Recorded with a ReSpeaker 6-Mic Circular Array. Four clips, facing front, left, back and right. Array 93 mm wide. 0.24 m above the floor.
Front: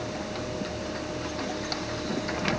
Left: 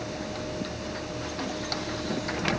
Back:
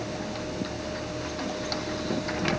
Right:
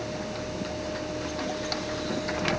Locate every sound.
Only background noise.